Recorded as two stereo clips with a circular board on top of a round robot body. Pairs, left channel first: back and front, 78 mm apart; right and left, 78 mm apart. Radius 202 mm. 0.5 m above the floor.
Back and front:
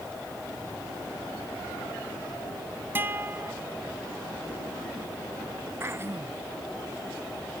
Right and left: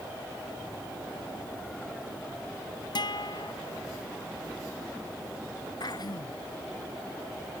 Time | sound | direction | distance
3.0 | a guitar | 65° right | ?
5.8 | throat clearing | 60° right | ?